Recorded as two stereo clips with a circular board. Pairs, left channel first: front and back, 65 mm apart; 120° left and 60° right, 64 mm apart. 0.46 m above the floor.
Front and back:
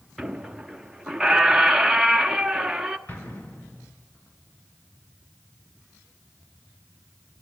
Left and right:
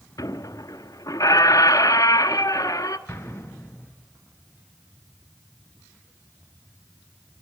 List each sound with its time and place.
0.2 s a squeak: 100° left, 1.1 m
3.1 s an explosion: 60° left, 3.5 m